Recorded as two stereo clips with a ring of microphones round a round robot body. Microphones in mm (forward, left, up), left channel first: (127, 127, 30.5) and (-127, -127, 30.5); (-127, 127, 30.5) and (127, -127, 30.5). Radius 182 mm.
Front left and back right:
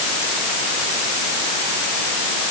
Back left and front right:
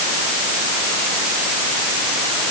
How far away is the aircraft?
I don't hear an aircraft.